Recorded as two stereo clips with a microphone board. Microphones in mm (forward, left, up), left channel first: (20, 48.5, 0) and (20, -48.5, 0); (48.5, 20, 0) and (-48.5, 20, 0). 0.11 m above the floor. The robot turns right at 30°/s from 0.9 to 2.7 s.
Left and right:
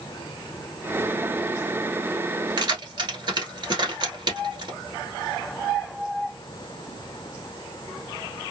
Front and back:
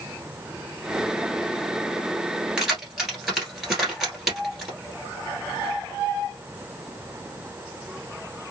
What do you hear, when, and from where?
2.6 s keys jangling: 100° right, 1.5 m; by 4.7 s 95° right, 1.5 m